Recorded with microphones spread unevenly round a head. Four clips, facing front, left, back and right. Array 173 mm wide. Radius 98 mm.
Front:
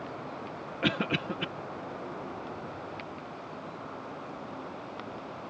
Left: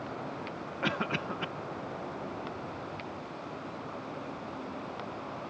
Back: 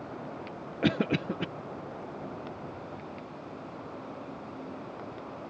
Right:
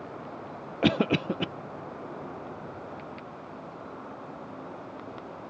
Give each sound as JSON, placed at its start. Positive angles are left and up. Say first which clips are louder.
{"t": 0.8, "sound": "a cough", "louder": "right 9 dB, back 3 dB", "azimuth_deg": -125}